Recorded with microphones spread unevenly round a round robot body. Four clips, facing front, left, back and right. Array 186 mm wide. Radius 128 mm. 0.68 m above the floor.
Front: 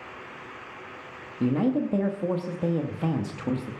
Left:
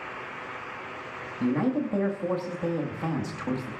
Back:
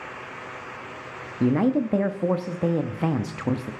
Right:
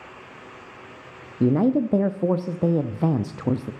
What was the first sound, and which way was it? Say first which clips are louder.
A man speaking: right 6 dB, back 3 dB; 110° right.